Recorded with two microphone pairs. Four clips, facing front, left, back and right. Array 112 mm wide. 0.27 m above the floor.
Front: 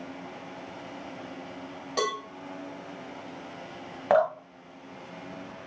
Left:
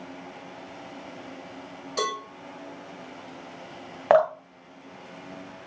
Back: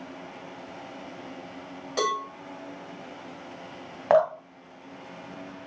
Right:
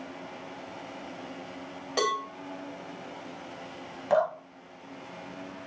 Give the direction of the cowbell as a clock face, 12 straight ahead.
3 o'clock.